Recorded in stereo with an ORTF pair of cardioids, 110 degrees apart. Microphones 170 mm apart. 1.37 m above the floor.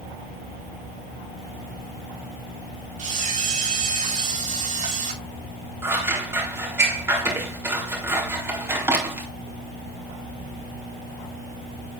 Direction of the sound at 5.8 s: 15° right.